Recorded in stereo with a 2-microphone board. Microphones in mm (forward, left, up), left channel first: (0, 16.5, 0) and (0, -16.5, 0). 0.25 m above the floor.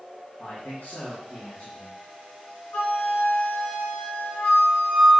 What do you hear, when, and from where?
0.4 s a man speaking: 65° left (ahead or behind), 3.5 m
2.7 s a flute: 75° left (ahead or behind), 2.0 m